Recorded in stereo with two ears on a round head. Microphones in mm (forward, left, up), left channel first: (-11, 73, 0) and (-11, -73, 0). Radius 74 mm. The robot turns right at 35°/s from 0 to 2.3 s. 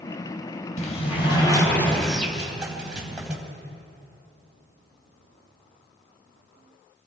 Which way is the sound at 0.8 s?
130° left.